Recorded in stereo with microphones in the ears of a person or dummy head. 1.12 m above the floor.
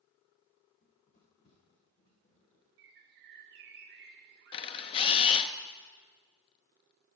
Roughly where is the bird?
Right.